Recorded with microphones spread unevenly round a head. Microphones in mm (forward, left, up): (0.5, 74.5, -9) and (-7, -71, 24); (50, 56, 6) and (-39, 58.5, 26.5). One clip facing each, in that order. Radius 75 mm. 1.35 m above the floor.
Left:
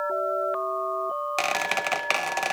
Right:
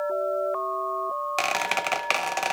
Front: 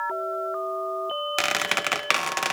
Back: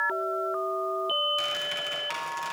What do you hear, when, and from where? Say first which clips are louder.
1.4 s a squeak: right 1 dB, front 7 dB; 5° right, 0.8 m